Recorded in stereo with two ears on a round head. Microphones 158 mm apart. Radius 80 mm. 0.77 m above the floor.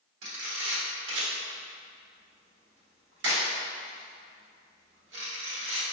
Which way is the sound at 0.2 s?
70° right (ahead or behind).